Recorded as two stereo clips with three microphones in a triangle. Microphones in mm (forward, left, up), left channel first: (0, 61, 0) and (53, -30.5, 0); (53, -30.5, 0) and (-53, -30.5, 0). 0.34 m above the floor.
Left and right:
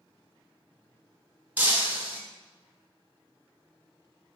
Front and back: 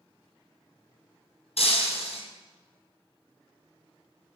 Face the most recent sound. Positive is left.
turn(degrees=15)